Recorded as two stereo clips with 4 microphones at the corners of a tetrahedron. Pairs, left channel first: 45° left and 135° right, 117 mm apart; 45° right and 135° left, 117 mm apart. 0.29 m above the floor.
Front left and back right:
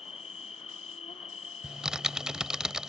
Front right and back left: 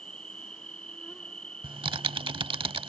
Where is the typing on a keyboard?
140° left.